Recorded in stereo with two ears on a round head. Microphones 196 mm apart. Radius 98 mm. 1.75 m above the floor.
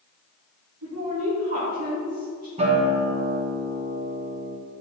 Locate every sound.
0.8 s a woman speaking: 75° right (ahead or behind), 2.5 m
2.6 s a guitar: 30° right (ahead or behind), 1.3 m